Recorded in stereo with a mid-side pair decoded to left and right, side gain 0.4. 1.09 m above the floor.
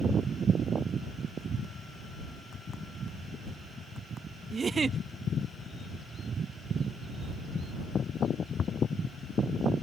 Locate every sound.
4.5 s a giggle: 45° right